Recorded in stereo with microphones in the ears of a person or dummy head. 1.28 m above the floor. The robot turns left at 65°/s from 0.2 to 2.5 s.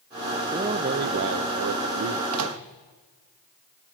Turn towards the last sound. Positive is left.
turn(degrees=-75)  # may be behind; listen again after turning